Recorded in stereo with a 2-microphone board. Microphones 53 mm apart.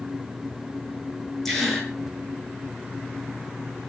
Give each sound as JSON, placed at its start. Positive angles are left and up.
{"t": 1.4, "sound": "a gasp", "side_deg": 5, "distance_m": 6.0}